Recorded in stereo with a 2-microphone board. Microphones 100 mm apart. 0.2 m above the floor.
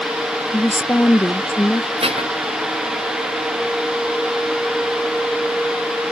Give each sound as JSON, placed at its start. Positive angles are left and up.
{"t": 0.5, "sound": "a woman speaking", "side_deg": 20}
{"t": 2.0, "sound": "dishes clattering", "side_deg": -75}